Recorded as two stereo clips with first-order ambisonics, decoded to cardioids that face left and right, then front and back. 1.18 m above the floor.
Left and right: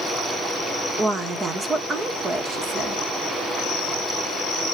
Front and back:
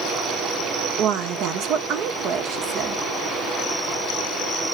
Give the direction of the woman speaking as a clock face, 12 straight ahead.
5 o'clock.